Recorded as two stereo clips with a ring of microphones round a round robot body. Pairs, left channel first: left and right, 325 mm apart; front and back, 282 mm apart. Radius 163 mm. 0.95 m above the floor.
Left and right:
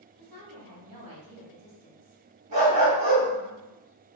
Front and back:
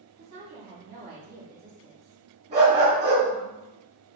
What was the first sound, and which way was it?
A woman speaking, 130° right.